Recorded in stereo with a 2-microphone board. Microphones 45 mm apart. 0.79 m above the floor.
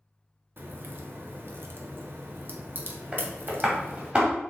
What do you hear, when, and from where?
0.6 s a crack: 50° right (ahead or behind), 1.1 m
3.1 s tapping: 25° right (ahead or behind), 2.5 m